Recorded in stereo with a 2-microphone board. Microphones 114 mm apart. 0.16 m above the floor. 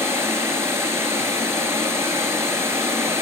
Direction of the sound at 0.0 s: 25° right (ahead or behind).